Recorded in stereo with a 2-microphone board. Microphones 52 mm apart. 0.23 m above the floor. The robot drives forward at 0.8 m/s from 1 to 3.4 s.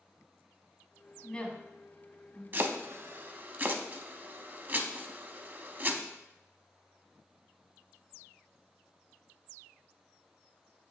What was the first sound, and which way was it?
A woman speaking, 15° left (ahead or behind).